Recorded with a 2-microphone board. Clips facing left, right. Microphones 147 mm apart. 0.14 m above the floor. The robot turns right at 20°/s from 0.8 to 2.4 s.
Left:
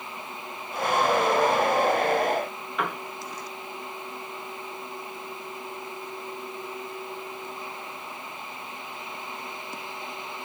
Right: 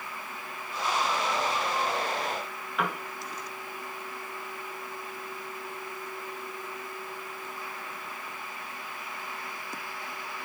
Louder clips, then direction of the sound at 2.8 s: Left 1 dB; centre (ahead or behind).